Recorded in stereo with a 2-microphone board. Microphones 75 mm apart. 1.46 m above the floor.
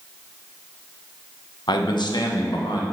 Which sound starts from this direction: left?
A man speaking, at 1.7 s.